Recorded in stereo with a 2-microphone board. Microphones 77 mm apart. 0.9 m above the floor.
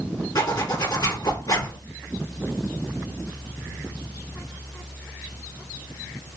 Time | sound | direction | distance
0.3 | a zipper | 60° left (ahead or behind) | 1.9 m